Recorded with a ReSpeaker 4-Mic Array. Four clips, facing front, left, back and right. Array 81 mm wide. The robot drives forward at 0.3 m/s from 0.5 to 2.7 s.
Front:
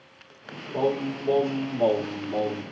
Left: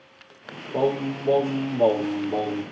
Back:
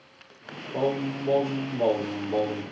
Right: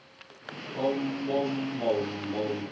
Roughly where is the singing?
Left.